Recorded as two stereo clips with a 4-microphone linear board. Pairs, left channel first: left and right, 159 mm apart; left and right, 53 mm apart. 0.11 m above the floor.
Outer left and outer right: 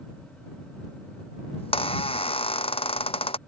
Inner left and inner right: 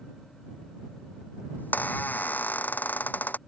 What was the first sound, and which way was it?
A squeak, 35° left (ahead or behind).